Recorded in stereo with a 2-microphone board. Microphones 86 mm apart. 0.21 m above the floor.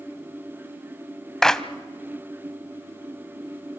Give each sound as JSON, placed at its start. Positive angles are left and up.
{"t": 1.4, "sound": "a clap", "side_deg": 5, "distance_m": 0.8}